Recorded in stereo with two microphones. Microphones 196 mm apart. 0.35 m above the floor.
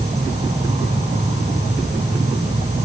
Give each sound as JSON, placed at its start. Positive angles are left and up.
{"t": 0.0, "sound": "an insect", "side_deg": -30, "distance_m": 2.5}